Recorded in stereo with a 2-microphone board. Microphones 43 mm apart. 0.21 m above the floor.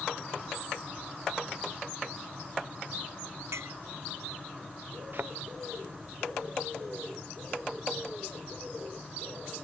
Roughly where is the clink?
Right.